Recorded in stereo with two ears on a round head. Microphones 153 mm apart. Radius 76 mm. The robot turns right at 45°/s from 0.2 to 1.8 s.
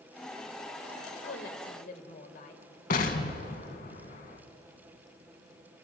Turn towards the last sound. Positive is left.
turn(degrees=55)  # may be behind; listen again after turning